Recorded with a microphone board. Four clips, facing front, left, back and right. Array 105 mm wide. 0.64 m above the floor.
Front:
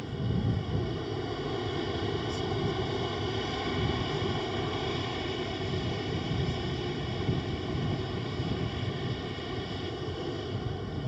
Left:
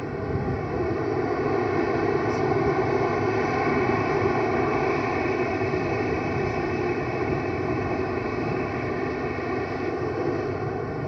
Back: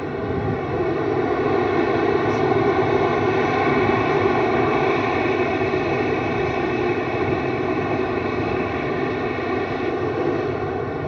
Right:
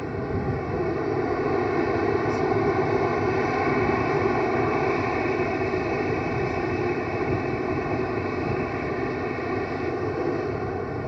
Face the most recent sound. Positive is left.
turn(degrees=180)